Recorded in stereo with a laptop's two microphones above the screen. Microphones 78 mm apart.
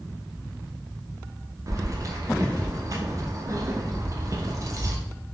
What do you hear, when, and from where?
1.7 s keys jangling: 40° right (ahead or behind), 0.5 m